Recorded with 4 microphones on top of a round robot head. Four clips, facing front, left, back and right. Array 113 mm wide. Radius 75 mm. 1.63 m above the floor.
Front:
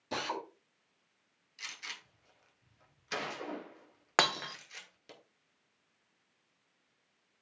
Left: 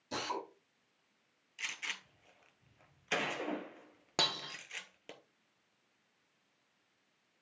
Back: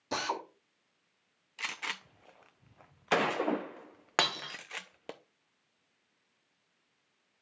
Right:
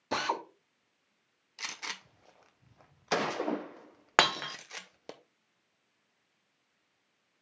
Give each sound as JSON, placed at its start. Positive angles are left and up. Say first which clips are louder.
{"t": 0.1, "sound": "a drill", "louder": "right 7 dB, back 3 dB", "azimuth_deg": -110, "distance_m": 1.3}
{"t": 1.6, "sound": "a gunshot", "louder": "right 2 dB, back 8 dB", "azimuth_deg": -150, "distance_m": 0.7}
{"t": 4.2, "sound": "breaking glass", "louder": "right 11 dB, front 2 dB", "azimuth_deg": -80, "distance_m": 0.8}